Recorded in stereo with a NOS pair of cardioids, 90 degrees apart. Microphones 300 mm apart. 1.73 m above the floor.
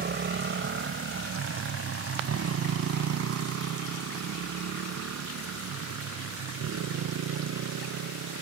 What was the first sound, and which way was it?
A motorcycle, 40° right.